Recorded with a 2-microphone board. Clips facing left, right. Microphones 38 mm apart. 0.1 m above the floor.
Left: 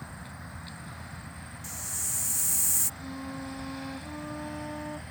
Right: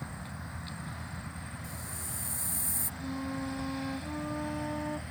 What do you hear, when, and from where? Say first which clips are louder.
1.6 s a hiss: left 2 dB; 80° left
3.0 s a flute: right 6 dB; 5° right (ahead or behind)